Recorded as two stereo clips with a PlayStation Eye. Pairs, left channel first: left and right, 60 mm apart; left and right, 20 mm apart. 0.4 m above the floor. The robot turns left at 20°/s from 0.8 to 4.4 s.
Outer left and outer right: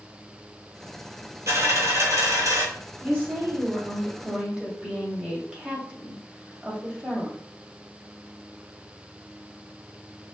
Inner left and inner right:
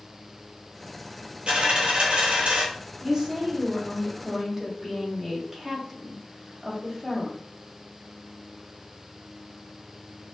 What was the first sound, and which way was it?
A dropped coin, 55° right (ahead or behind).